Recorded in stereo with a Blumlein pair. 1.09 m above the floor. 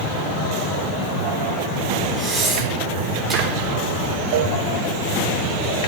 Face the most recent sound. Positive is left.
turn(degrees=-45)